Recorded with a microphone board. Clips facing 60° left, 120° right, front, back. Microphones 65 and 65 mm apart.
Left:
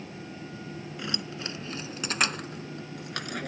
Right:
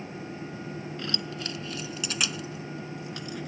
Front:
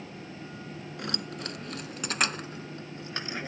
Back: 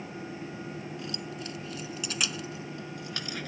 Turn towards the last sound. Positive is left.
turn(degrees=65)